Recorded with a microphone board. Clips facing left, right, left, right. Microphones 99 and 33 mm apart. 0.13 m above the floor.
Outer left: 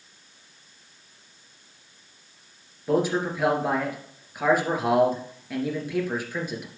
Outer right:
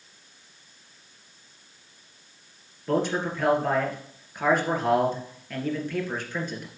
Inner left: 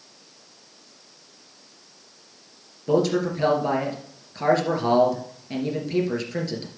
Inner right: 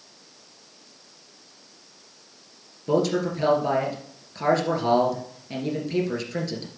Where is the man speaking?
5° left (ahead or behind), 2.5 m.